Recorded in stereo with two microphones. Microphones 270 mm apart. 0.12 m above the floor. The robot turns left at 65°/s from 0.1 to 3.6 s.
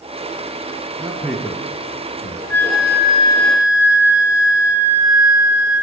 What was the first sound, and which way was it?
A man speaking, 15° right (ahead or behind).